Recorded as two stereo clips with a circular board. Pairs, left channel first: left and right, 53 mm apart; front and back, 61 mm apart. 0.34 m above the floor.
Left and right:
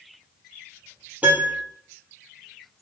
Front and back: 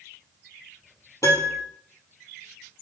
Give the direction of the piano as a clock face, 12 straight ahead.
1 o'clock.